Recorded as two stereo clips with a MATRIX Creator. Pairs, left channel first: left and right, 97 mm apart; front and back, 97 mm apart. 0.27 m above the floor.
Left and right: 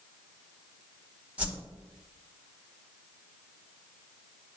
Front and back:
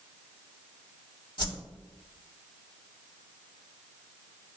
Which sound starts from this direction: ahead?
A whoosh, at 1.4 s.